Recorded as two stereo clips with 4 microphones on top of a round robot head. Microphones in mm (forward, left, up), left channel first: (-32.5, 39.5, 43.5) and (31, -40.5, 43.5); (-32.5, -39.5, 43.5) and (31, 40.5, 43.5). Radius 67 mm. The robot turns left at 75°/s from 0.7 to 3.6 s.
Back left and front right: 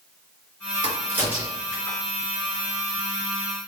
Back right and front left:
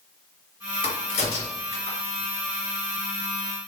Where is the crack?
95° right, 2 m; by 2.0 s straight behind, 2 m.